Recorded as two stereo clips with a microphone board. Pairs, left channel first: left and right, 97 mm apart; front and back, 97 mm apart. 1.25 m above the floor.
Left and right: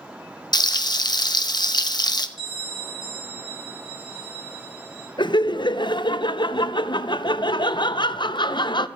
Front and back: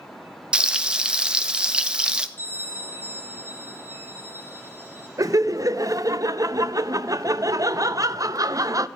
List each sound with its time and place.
0.5 s frying: 105° left, 0.6 m
2.4 s a bell: 70° right, 4 m
5.2 s laughter: 125° left, 0.5 m